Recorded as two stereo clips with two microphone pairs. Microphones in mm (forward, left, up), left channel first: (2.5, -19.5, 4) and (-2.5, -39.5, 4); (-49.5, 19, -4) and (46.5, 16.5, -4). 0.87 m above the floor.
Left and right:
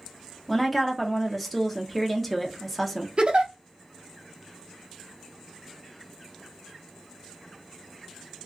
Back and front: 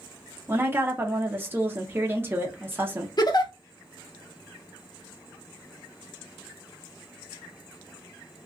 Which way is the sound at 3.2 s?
140° right.